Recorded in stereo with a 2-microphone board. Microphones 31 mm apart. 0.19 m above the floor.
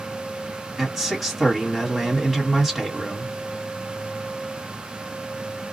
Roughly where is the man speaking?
Centre.